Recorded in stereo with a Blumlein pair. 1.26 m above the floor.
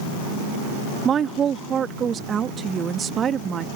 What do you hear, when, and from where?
1.1 s a woman speaking: 25° right